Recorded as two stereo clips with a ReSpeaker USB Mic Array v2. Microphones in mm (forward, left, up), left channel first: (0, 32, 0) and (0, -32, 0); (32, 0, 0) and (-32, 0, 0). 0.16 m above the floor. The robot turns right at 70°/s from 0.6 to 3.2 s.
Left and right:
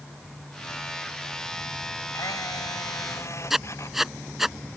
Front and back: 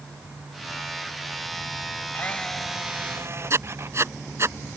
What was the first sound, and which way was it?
A camera shutter, 60° left.